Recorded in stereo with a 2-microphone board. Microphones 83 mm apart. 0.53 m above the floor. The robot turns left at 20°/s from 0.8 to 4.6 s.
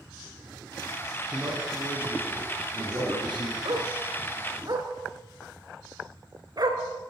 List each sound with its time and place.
1.3 s a man speaking: 20° right, 6.5 m; by 3.5 s 65° right, 6.5 m
3.6 s a dog barking: 70° right (ahead or behind), 2.5 m; by 6.8 s 50° right (ahead or behind), 2.5 m